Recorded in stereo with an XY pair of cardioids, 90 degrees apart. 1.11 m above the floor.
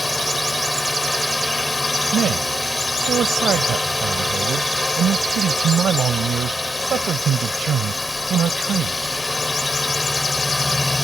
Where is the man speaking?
65° right.